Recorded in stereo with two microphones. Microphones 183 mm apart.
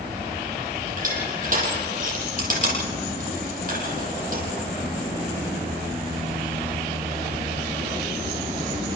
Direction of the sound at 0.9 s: 50° right (ahead or behind).